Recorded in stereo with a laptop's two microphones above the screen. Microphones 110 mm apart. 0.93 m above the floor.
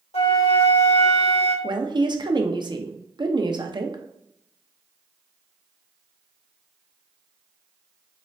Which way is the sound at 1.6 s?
45° right (ahead or behind).